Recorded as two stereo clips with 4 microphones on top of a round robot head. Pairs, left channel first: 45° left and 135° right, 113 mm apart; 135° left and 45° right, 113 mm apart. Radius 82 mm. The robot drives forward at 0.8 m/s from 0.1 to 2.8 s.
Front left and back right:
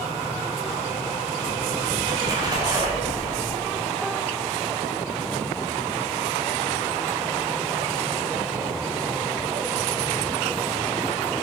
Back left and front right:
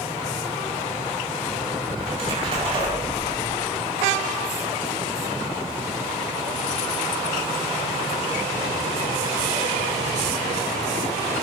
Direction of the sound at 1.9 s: 75° right.